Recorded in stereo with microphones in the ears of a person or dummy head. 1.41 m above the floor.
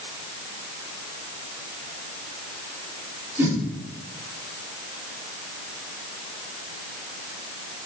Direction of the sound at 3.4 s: 15° right (ahead or behind).